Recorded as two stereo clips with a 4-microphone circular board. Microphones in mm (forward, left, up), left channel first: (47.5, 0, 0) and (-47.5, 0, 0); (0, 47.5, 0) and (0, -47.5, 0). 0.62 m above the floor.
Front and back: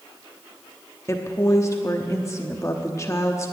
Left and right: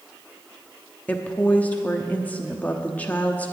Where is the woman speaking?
30° left, 0.9 m.